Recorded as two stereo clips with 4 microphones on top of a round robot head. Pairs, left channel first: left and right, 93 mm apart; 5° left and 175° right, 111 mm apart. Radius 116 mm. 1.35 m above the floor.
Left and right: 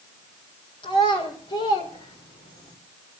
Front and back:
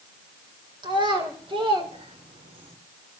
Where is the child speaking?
130° left, 4 m; by 2.8 s 145° left, 3 m.